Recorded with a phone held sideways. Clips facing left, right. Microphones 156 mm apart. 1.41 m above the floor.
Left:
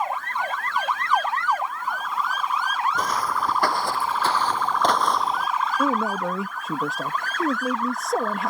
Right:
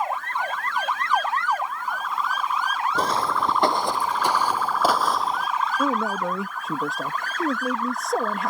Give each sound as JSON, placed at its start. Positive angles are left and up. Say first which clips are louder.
{"t": 3.0, "sound": "footsteps", "louder": "right 2 dB", "side_deg": -30}
{"t": 5.8, "sound": "a man speaking", "louder": "left 1 dB", "side_deg": 0}